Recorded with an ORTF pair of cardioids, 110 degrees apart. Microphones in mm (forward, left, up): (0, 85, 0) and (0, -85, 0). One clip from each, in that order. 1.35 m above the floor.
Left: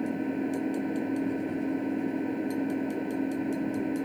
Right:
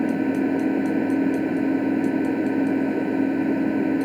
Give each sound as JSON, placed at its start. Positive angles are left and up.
{"t": 0.0, "sound": "an engine running", "azimuth_deg": -50}